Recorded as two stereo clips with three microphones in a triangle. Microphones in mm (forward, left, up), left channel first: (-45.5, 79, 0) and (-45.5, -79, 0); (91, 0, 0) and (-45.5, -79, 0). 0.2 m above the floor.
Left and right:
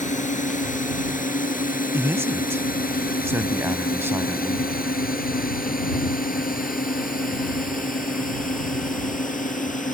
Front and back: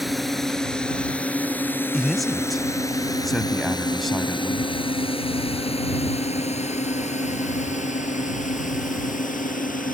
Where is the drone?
120° left; by 9.9 s 55° left.